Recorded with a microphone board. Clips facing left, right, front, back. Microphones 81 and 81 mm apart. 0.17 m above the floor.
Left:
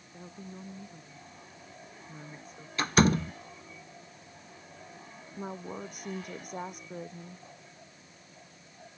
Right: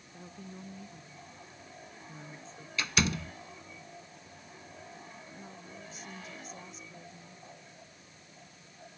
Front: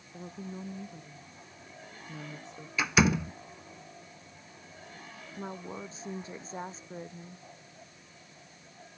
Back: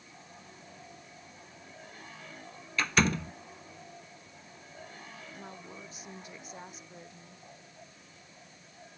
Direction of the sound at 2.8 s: 80° left.